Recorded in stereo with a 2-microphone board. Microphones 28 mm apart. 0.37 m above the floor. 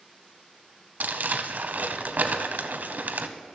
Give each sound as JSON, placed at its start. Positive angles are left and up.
{"t": 1.0, "sound": "crumpling", "side_deg": -80, "distance_m": 0.6}